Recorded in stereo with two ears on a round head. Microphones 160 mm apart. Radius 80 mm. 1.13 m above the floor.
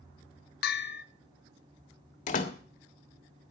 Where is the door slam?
45° left (ahead or behind), 1.5 m.